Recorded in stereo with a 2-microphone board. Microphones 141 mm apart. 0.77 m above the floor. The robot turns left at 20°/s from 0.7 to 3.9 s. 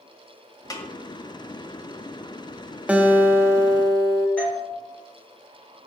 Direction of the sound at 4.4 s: 10° left (ahead or behind).